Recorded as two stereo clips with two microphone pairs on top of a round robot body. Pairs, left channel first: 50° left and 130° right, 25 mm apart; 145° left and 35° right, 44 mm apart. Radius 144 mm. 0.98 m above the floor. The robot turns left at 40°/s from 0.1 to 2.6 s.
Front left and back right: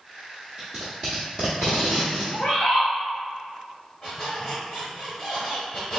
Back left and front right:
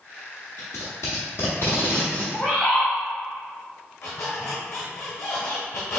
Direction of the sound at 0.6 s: 135° left.